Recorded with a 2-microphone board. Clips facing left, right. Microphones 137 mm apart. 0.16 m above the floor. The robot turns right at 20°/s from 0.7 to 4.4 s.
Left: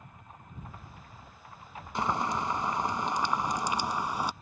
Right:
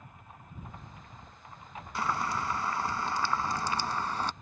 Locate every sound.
1.9 s boiling: 25° left (ahead or behind); by 4.3 s 10° left (ahead or behind)